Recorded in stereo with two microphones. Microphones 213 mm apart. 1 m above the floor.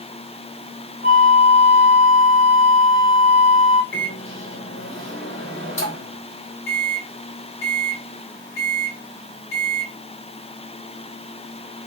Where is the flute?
35° right (ahead or behind), 0.8 m.